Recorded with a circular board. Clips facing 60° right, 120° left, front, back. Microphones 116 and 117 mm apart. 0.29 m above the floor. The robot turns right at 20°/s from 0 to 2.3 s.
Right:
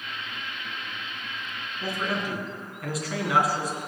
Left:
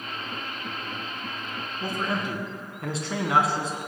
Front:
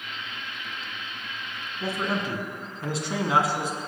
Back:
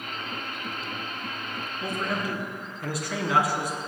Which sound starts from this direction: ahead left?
A man speaking, at 1.8 s.